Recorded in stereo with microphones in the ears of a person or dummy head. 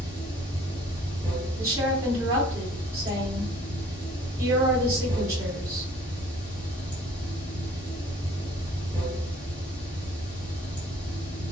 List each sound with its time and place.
0.0 s running water: 15° left (ahead or behind), 1.1 m
1.6 s a woman speaking: 15° right (ahead or behind), 0.8 m